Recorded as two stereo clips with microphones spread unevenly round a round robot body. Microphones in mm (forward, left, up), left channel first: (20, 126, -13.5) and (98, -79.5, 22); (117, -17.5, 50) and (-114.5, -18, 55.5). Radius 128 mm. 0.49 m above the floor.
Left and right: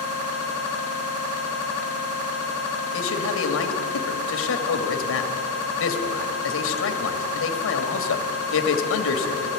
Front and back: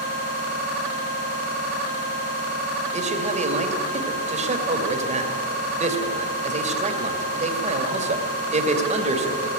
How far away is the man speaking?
About 2 m.